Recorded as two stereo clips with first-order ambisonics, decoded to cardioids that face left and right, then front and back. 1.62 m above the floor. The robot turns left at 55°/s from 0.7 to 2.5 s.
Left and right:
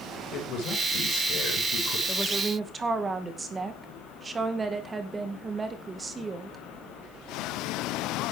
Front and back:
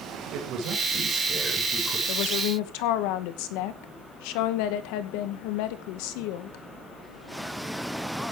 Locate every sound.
0.3 s a man speaking: 135° left, 7 m; by 2.0 s 65° left, 7 m
2.1 s a woman speaking: 10° left, 2 m; by 6.6 s 15° right, 2 m